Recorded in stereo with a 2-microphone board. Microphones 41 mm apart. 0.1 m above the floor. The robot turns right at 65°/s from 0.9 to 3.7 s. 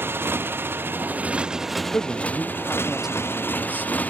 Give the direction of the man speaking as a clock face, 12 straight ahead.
8 o'clock.